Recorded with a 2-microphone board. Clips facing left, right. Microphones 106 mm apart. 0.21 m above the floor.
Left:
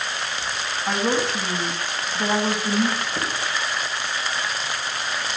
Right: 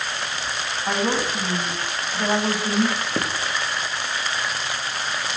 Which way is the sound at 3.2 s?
85° right.